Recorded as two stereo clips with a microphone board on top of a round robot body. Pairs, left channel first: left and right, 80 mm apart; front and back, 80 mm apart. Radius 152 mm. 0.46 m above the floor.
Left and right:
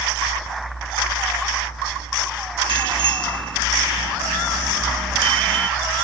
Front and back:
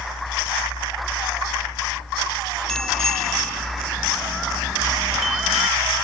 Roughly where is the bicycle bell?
Right.